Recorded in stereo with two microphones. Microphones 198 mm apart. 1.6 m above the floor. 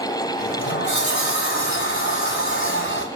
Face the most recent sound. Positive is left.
turn(degrees=85)